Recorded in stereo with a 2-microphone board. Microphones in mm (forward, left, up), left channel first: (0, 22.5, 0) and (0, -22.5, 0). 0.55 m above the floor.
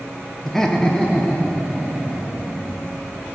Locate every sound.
0.5 s laughter: 5° left (ahead or behind), 0.6 m; by 2.8 s 15° left (ahead or behind), 2.5 m